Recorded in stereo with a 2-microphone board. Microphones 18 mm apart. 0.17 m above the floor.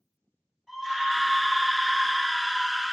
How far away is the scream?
About 2 m.